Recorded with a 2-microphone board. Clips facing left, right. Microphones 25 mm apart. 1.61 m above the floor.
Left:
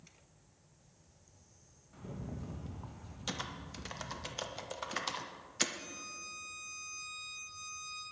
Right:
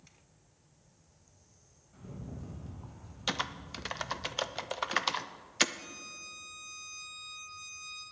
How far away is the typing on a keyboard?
About 0.5 m.